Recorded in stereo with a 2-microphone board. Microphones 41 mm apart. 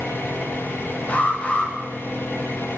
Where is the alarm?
35° left (ahead or behind), 9 m.